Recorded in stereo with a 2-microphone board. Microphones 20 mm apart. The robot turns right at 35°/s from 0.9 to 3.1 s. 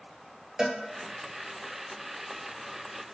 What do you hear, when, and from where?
0.6 s a cowbell: 35° right (ahead or behind), 2.5 m